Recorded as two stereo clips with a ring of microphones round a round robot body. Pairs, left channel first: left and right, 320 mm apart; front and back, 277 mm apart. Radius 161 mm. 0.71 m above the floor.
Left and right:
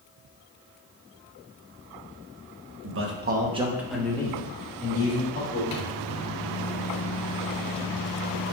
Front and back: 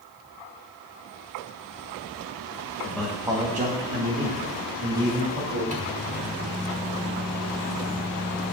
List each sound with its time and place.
2.8 s a man speaking: 75° right, 1.2 m; by 5.6 s 150° left, 2.5 m
5.7 s a microwave: 115° left, 1.2 m